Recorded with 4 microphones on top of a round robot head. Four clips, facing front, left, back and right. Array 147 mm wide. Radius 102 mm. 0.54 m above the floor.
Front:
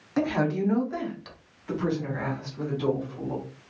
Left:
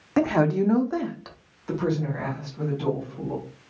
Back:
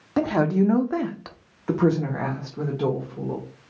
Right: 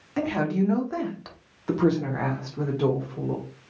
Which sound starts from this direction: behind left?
A woman speaking, at 0.2 s.